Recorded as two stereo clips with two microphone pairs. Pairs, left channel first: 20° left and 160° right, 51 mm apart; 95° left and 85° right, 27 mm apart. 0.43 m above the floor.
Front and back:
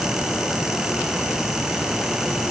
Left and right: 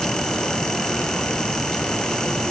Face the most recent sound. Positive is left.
No sound to turn to.